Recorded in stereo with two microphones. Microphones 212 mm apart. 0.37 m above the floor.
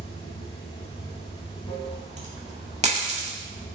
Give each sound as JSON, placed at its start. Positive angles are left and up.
{"t": 0.0, "sound": "running water", "side_deg": 25, "distance_m": 0.7}
{"t": 1.8, "sound": "a dropped coin", "side_deg": -35, "distance_m": 0.7}